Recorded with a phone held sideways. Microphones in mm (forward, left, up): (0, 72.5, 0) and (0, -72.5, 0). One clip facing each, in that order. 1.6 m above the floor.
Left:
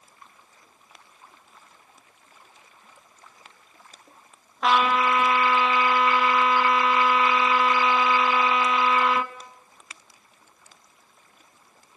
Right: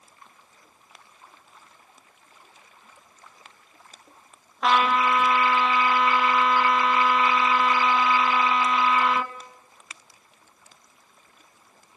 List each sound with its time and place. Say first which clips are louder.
4.6 s a trumpet: even; centre (ahead or behind), 1.8 m